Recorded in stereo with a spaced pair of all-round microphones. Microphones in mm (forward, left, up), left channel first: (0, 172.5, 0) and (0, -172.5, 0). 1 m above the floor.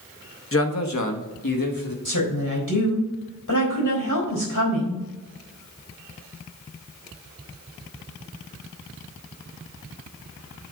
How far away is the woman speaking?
About 3.5 m.